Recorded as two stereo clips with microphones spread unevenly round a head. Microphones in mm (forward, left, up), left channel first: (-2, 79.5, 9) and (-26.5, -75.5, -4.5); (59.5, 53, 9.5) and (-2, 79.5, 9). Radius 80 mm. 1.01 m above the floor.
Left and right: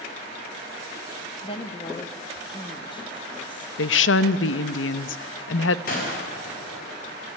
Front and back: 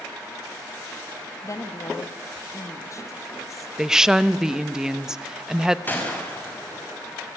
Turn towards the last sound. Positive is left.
turn(degrees=40)